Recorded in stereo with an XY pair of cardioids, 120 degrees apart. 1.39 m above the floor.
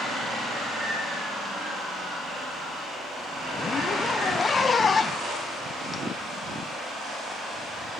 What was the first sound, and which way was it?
A zipper, 30° left.